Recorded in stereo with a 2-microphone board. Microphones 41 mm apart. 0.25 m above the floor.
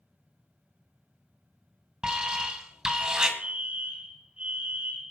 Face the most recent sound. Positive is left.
turn(degrees=-30)  # may be behind; listen again after turning